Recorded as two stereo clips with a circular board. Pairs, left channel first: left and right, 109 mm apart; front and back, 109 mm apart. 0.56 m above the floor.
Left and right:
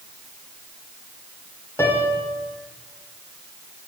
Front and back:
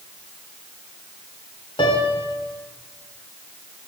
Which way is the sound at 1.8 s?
30° left.